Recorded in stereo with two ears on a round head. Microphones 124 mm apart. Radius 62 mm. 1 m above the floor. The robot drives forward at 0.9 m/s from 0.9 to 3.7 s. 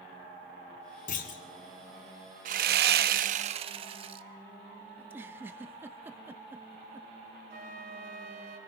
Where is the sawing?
60° right (ahead or behind), 0.8 m; by 4.2 s 40° right (ahead or behind), 1.0 m.